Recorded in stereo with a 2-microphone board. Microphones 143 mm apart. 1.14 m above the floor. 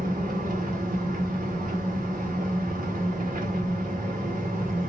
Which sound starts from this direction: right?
An engine running, at 0.0 s.